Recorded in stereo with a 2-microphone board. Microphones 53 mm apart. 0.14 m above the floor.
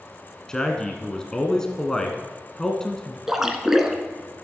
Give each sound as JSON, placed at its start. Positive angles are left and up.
{"t": 0.5, "sound": "a man speaking", "side_deg": 15, "distance_m": 1.2}
{"t": 3.3, "sound": "a splash", "side_deg": -10, "distance_m": 1.0}